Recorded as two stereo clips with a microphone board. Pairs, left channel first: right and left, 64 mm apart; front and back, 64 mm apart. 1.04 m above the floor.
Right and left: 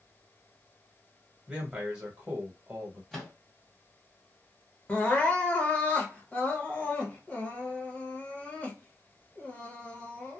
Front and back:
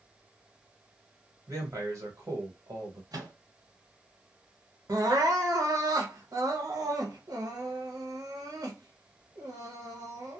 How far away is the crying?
About 0.8 m.